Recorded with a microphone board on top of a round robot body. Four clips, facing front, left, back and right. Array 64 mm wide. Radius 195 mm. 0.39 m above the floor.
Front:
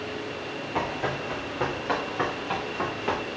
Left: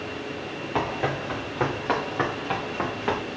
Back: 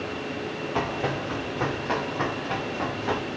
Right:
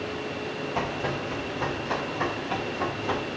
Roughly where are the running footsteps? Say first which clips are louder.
Left 4 dB, back 1 dB; left.